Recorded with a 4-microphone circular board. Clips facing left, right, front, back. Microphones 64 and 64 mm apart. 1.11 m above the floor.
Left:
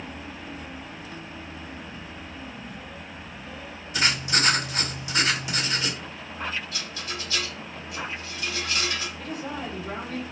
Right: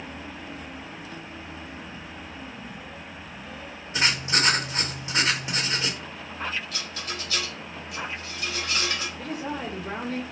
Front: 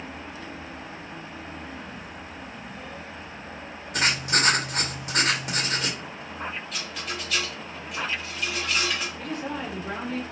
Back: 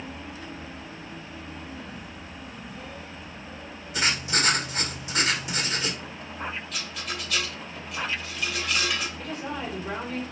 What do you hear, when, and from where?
3.9 s writing: 35° right, 1.5 m
6.7 s a rattle: 90° right, 2.0 m
9.2 s a woman speaking: 90° right, 2.5 m